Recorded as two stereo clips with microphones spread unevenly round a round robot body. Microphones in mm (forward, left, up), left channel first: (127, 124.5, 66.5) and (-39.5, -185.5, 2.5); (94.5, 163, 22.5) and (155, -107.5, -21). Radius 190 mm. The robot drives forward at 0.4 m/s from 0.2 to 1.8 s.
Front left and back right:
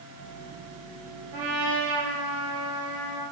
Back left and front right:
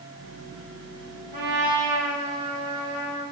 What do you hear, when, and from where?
1.3 s a trumpet: 90° right, 4 m; by 3.2 s 95° right, 4 m